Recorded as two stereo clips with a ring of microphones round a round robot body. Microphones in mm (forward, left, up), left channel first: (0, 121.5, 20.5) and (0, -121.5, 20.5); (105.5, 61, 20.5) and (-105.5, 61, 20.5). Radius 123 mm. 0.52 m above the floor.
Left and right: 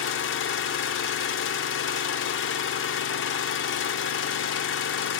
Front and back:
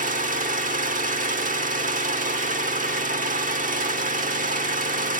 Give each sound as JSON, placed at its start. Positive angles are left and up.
{"t": 0.0, "sound": "an engine running", "azimuth_deg": 130, "distance_m": 1.0}